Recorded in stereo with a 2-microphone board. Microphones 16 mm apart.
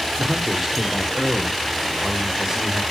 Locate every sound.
0.2 s a man speaking: 10° right (ahead or behind), 1.6 m; by 2.8 s 30° right (ahead or behind), 3 m